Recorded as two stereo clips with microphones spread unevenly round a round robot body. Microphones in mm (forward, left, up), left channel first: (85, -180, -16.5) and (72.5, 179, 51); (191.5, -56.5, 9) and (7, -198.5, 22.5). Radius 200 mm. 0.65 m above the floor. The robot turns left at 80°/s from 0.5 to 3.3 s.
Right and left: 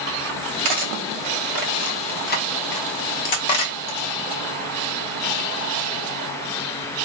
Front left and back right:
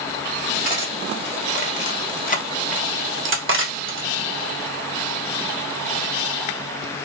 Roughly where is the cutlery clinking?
Left.